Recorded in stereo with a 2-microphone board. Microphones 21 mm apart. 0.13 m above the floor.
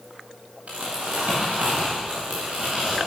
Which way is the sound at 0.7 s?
80° right.